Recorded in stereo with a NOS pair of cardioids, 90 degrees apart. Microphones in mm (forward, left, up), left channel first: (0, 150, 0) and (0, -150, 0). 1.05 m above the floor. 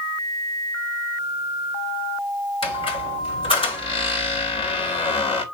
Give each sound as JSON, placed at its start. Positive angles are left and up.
{"t": 2.6, "sound": "a squeak", "azimuth_deg": 20, "distance_m": 3.5}